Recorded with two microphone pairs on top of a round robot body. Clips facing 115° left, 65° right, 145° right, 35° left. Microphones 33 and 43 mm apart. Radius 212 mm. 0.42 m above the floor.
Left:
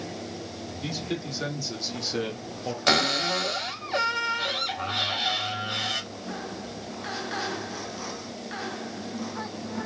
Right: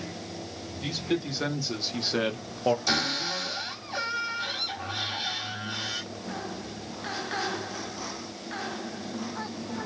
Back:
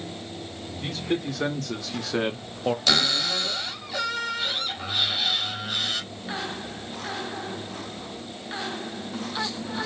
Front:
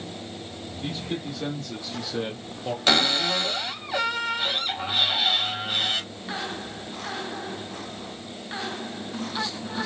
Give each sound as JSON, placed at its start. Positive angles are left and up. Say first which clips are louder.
{"t": 0.8, "sound": "a man speaking", "louder": "right 3 dB, back 4 dB", "azimuth_deg": -150, "distance_m": 2.0}
{"t": 2.9, "sound": "a cupboard door", "louder": "left 5 dB, front 6 dB", "azimuth_deg": 90, "distance_m": 3.0}